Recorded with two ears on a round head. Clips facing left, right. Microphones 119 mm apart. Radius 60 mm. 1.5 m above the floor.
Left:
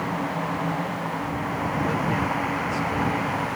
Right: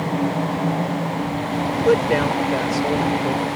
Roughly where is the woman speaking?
Right.